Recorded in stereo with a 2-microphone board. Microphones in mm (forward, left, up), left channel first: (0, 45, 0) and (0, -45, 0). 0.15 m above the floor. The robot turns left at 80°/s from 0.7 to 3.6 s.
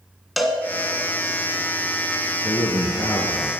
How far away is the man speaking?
About 2 m.